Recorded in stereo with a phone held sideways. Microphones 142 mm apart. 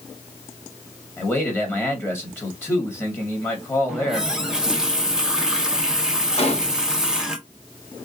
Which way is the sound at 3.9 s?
5° right (ahead or behind).